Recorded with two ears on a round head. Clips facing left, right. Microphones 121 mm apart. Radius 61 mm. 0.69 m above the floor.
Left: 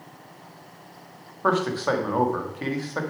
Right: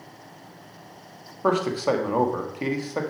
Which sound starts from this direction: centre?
A man speaking, at 1.4 s.